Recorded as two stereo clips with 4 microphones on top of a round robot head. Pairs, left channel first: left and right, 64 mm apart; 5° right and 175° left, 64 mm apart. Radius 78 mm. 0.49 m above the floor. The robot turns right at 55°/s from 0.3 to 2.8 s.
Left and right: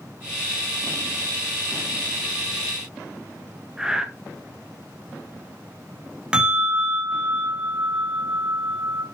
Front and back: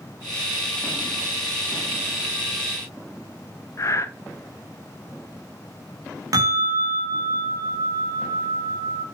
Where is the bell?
160° right, 3 m.